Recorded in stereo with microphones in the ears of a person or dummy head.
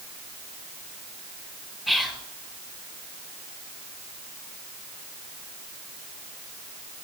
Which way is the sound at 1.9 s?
5° right (ahead or behind).